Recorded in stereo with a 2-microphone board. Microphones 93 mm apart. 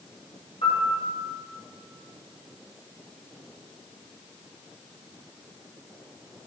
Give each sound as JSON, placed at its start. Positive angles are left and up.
{"t": 0.6, "sound": "a piano", "side_deg": 85, "distance_m": 2.5}